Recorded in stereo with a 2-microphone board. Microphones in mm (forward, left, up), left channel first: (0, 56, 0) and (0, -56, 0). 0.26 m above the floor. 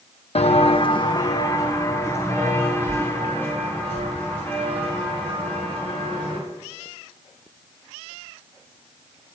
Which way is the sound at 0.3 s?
70° left (ahead or behind).